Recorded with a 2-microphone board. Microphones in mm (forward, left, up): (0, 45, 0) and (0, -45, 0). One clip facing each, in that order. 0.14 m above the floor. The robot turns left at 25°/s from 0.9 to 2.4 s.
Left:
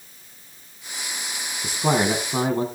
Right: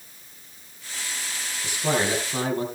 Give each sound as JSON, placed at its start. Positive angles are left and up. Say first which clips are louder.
{"t": 1.6, "sound": "a man speaking", "louder": "left 3 dB", "side_deg": 40, "distance_m": 4.5}